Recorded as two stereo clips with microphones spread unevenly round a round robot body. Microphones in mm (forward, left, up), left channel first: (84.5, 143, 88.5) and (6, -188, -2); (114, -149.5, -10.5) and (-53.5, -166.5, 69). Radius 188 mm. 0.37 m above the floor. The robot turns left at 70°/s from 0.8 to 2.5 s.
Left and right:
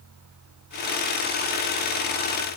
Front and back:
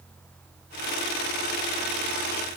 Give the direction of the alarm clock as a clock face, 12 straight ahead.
I don't hear an alarm clock.